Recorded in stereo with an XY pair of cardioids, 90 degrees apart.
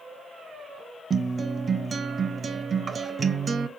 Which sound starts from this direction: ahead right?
A guitar, at 1.1 s.